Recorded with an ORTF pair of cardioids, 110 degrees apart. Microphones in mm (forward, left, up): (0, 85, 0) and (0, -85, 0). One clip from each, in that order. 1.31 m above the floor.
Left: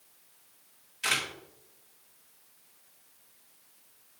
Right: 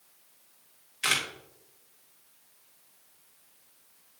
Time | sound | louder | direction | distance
1.0 | a camera shutter | right 2 dB | 45° right | 2.5 m